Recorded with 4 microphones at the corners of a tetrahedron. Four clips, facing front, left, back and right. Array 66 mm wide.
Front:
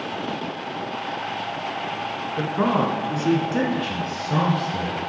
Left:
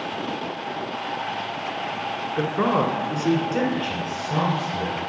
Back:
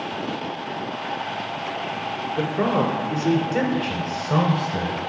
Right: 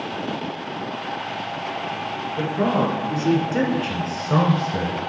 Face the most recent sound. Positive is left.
turn(degrees=-100)